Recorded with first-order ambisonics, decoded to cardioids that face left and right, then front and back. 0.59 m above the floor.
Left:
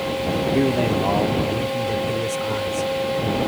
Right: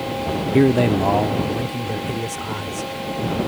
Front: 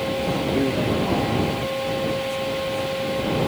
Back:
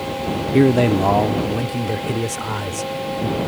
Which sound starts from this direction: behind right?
A man speaking, at 0.5 s.